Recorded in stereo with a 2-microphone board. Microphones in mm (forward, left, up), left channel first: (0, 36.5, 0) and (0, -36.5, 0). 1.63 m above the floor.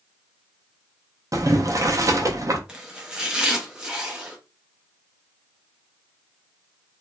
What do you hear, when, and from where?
1.3 s boiling: 50° right (ahead or behind), 0.5 m
2.7 s chopping: 15° right (ahead or behind), 0.7 m